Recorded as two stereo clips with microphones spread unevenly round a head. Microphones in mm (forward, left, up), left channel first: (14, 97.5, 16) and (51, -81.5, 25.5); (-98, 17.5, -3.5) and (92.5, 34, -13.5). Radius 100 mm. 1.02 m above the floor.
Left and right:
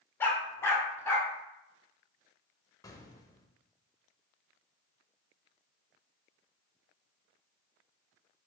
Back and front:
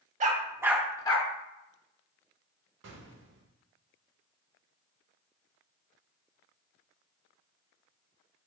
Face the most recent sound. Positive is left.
turn(degrees=30)